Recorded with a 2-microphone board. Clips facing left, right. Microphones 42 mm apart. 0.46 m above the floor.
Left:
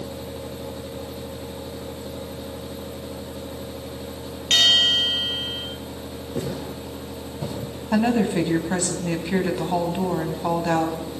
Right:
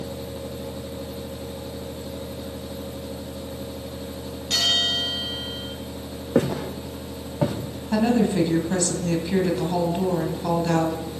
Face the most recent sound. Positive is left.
turn(degrees=25)  # may be behind; listen again after turning